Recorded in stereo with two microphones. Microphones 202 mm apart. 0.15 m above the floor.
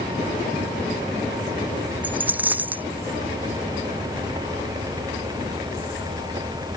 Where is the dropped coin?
10° right (ahead or behind).